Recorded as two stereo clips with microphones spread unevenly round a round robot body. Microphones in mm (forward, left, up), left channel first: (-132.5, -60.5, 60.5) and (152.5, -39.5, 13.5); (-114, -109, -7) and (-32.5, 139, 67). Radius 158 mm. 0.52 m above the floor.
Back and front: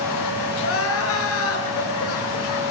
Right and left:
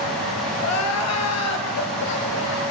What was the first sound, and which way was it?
Crying, 135° right.